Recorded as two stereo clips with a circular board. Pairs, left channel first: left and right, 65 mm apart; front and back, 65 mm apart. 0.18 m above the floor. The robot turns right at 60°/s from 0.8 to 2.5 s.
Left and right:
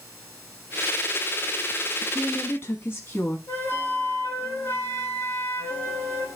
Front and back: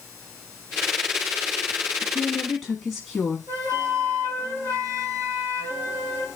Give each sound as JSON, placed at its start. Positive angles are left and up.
{"t": 2.0, "sound": "a woman speaking", "azimuth_deg": 55, "distance_m": 1.3}
{"t": 3.5, "sound": "a flute", "azimuth_deg": 145, "distance_m": 2.0}